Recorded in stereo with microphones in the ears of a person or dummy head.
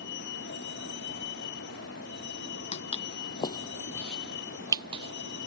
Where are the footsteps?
40° left (ahead or behind); by 5.5 s 40° right (ahead or behind).